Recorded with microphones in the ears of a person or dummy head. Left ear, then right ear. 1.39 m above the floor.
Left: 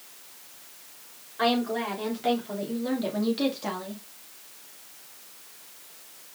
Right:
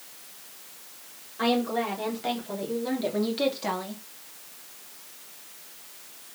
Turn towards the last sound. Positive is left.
turn(degrees=-15)  # may be behind; listen again after turning